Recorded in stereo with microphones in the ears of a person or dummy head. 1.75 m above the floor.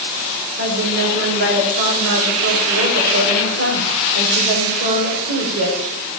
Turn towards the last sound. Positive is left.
turn(degrees=-60)  # may be behind; listen again after turning